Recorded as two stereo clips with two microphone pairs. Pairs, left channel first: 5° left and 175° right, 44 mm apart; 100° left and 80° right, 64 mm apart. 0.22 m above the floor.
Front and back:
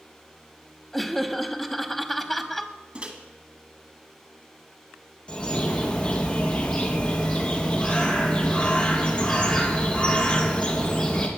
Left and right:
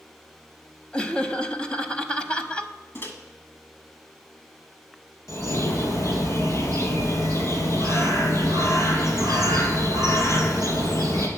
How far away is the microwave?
About 1.6 m.